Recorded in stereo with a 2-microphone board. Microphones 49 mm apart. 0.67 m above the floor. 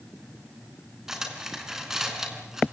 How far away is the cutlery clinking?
About 4.5 m.